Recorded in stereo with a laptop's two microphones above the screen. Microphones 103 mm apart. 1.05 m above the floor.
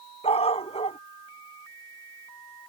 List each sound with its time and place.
0.2 s a dog barking: 80° left